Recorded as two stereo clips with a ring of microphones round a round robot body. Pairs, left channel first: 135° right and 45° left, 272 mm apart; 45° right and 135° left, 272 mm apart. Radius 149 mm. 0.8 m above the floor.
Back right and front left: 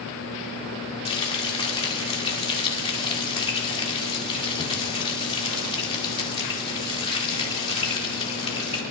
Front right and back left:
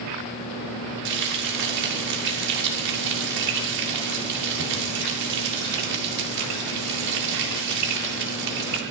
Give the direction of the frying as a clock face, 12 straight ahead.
7 o'clock.